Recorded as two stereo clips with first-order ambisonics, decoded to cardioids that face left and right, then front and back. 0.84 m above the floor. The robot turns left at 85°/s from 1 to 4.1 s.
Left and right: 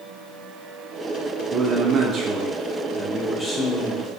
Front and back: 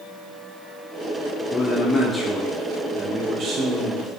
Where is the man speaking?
40° right, 0.6 m; by 4.1 s 100° left, 0.6 m.